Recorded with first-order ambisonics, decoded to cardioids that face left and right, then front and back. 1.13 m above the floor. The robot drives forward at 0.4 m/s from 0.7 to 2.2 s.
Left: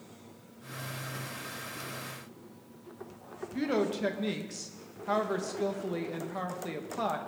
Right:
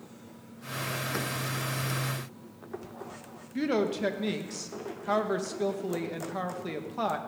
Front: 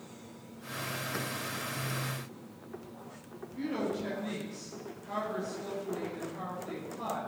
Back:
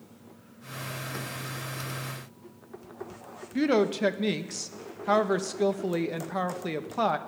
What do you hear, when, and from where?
3.5 s a woman speaking: 175° right, 1.0 m